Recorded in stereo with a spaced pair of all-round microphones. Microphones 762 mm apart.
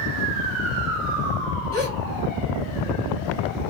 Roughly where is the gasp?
Right.